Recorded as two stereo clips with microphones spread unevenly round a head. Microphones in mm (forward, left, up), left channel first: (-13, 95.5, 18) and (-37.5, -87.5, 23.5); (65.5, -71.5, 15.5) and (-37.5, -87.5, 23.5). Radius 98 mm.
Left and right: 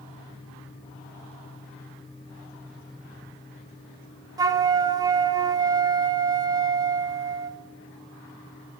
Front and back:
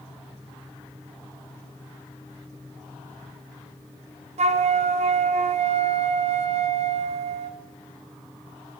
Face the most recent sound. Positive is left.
turn(degrees=-170)